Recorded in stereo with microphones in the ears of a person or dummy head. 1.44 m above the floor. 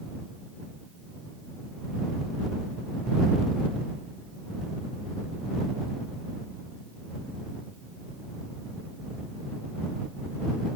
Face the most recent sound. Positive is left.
No sound to turn to.